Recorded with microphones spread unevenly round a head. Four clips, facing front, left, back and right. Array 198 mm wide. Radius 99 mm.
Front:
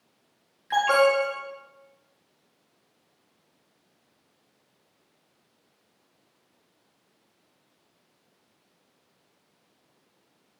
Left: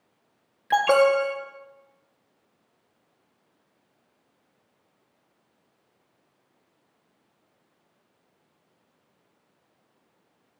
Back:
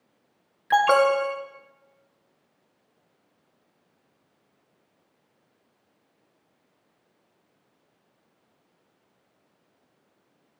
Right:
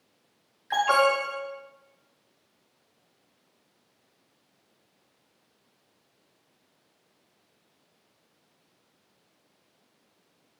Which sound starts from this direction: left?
An alarm, at 0.7 s.